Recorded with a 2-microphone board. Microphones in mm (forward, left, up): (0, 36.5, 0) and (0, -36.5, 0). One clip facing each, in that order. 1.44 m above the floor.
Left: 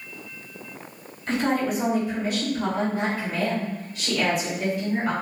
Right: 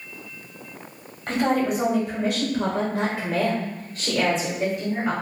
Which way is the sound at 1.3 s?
60° right (ahead or behind).